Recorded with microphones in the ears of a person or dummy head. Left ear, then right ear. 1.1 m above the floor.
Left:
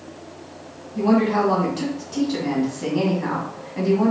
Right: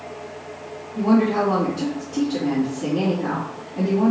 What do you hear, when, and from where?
0.9 s a woman speaking: 65° left (ahead or behind), 1.6 m